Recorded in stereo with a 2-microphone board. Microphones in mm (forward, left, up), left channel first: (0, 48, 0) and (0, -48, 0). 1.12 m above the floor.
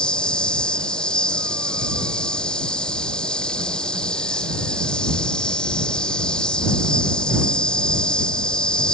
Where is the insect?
10° left (ahead or behind).